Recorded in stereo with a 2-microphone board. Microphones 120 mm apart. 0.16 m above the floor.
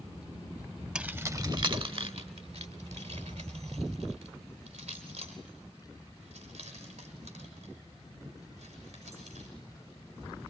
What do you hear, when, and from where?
0.9 s keys jangling: 10° right (ahead or behind), 0.8 m; by 9.5 s 75° right (ahead or behind), 7 m